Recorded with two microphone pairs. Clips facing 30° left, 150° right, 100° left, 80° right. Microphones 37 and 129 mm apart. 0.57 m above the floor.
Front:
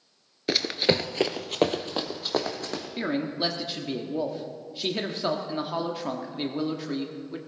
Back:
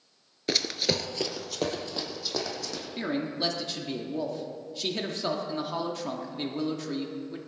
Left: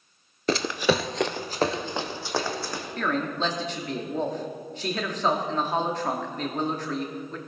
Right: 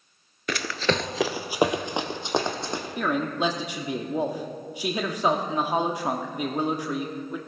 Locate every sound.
0.5 s running footsteps: 100° left, 0.6 m; by 2.9 s 15° right, 2 m
3.0 s a man speaking: 20° right, 1.0 m